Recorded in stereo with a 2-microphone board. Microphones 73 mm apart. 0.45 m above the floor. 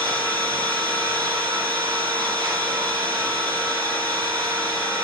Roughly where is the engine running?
Right.